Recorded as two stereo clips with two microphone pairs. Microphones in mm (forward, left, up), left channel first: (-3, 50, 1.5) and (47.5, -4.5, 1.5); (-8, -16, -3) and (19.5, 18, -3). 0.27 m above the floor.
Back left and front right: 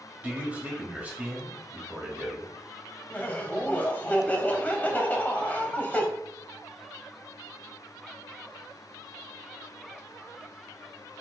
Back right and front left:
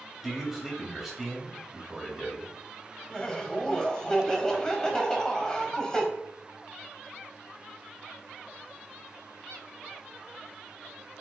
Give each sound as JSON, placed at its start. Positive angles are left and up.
{"t": 0.2, "sound": "a man speaking", "azimuth_deg": -25, "distance_m": 1.4}
{"t": 3.1, "sound": "laughter", "azimuth_deg": 175, "distance_m": 1.0}